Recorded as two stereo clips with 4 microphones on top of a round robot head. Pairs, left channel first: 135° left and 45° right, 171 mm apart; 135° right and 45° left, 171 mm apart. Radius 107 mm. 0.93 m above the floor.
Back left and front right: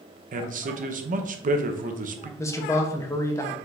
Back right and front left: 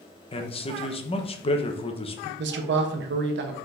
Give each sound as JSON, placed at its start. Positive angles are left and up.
{"t": 0.3, "sound": "a man speaking", "azimuth_deg": -80, "distance_m": 0.8}
{"t": 2.4, "sound": "a man speaking", "azimuth_deg": 60, "distance_m": 0.7}